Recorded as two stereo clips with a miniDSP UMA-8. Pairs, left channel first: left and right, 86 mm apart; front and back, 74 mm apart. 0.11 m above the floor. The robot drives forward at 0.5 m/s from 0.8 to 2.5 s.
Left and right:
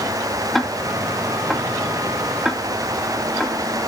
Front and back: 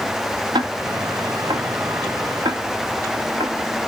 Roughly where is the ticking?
Behind.